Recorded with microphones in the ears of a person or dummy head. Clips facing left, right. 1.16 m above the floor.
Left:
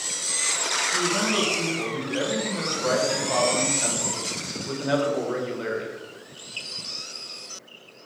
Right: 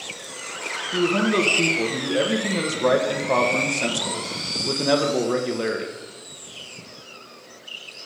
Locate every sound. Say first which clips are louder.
0.9 s a man speaking: right 6 dB; 60° right (ahead or behind), 1.2 m